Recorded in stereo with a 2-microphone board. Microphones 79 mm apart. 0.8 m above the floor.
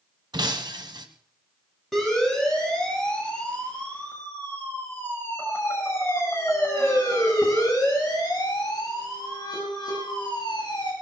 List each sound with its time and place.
0.3 s breaking glass: 70° right (ahead or behind), 1.3 m
1.9 s a siren: centre (ahead or behind), 7 m; by 10.9 s 75° left (ahead or behind), 8 m